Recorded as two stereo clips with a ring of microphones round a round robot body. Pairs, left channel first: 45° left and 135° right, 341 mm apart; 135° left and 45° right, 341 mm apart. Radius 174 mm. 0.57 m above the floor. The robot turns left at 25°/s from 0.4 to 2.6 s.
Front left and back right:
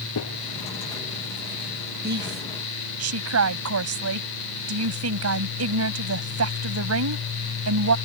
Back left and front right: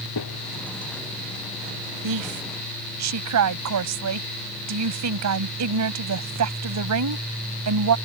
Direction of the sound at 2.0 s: 75° right.